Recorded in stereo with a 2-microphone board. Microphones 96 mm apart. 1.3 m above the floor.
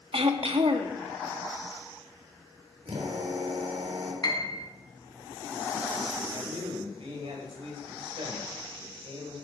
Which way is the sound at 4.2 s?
45° left (ahead or behind).